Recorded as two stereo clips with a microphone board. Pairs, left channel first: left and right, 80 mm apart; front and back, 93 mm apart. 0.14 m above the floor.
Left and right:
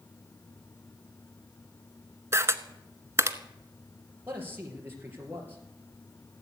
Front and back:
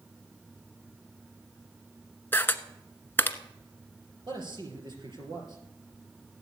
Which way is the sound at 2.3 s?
55° right.